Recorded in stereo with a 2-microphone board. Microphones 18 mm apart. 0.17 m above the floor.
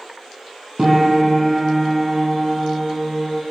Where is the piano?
30° right (ahead or behind), 4.5 m.